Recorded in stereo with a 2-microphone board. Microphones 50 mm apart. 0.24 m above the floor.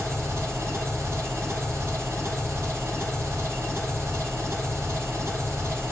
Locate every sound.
0.0 s an engine running: 70° right (ahead or behind), 6 m